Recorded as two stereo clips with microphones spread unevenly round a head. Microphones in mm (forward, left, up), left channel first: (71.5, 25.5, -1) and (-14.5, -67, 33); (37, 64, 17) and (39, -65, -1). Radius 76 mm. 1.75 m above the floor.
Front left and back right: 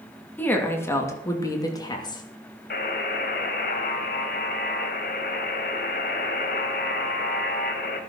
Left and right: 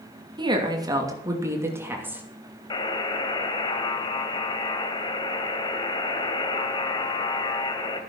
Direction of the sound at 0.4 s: 30° right.